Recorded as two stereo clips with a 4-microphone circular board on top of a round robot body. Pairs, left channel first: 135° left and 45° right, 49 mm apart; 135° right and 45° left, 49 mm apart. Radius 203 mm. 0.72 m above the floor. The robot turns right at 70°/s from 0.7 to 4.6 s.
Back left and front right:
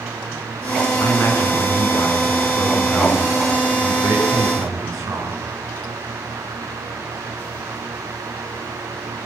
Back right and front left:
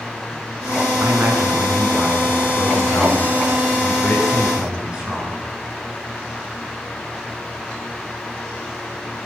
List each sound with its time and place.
1.0 s a man speaking: 85° left, 9 m; by 5.4 s 25° right, 9 m